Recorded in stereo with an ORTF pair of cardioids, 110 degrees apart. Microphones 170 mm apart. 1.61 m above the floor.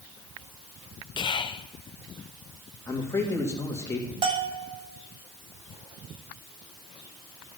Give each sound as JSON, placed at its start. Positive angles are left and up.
{"t": 1.2, "sound": "whispering", "azimuth_deg": 30, "distance_m": 0.7}
{"t": 2.9, "sound": "a man speaking", "azimuth_deg": 15, "distance_m": 2.5}
{"t": 4.2, "sound": "a bell", "azimuth_deg": -30, "distance_m": 1.5}